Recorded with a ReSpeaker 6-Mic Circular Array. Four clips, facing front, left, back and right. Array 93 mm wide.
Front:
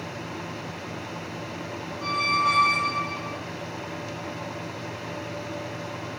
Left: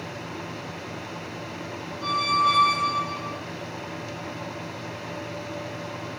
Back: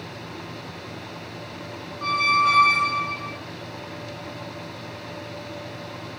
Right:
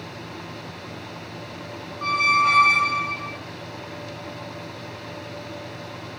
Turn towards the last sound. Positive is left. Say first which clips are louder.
# right 2 dB, back 4 dB
turn(degrees=-105)